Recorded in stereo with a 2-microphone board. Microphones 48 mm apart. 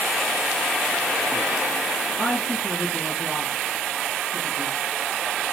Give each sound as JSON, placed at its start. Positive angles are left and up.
{"t": 2.2, "sound": "a woman speaking", "side_deg": -10, "distance_m": 3.0}